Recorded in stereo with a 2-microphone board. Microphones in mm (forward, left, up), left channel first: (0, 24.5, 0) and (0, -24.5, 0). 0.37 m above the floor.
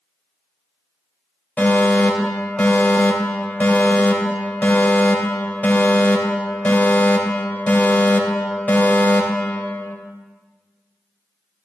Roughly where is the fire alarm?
Left.